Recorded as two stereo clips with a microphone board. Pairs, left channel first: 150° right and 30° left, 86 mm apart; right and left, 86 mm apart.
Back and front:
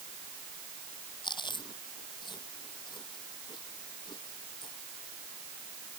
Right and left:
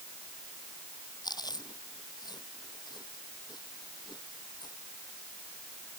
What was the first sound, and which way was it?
Chewing, 125° right.